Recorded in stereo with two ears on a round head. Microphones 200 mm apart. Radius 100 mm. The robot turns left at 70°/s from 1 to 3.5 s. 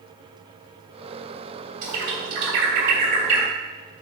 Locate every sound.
1.8 s a bird: 40° right (ahead or behind), 3 m; by 3.5 s 20° right (ahead or behind), 3 m